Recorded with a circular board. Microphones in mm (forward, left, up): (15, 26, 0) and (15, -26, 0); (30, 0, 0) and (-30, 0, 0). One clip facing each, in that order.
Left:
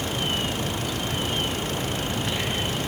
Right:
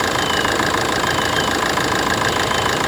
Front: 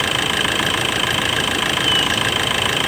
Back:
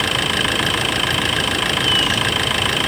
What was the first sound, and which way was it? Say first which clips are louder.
An engine running: right 10 dB, even; 90° right.